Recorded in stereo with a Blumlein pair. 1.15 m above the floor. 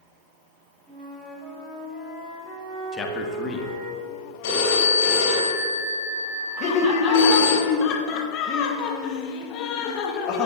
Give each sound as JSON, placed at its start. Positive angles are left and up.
{"t": 0.9, "sound": "a flute", "azimuth_deg": -10, "distance_m": 2.5}
{"t": 2.9, "sound": "a man speaking", "azimuth_deg": 20, "distance_m": 1.4}
{"t": 4.4, "sound": "a phone ringing", "azimuth_deg": 55, "distance_m": 3.5}
{"t": 6.6, "sound": "laughter", "azimuth_deg": 35, "distance_m": 1.1}